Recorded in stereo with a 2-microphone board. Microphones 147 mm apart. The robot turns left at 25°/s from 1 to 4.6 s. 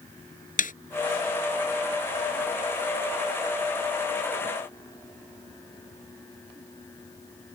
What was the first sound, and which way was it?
A snare drum, 65° left (ahead or behind).